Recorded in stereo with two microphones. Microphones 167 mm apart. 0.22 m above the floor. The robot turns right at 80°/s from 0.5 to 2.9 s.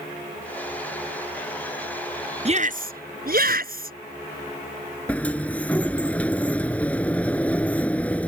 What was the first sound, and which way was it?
A shout, 135° right.